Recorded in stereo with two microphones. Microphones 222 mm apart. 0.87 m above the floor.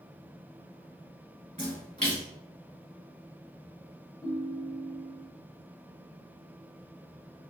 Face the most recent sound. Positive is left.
turn(degrees=20)  # may be behind; listen again after turning